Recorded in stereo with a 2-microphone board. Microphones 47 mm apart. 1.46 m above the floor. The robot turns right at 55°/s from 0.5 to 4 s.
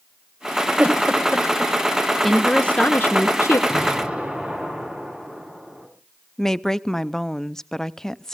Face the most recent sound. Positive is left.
turn(degrees=10)  # may be behind; listen again after turning